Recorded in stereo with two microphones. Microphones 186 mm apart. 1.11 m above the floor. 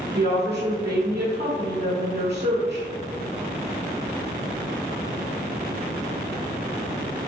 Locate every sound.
0.1 s a woman speaking: 65° right (ahead or behind), 0.9 m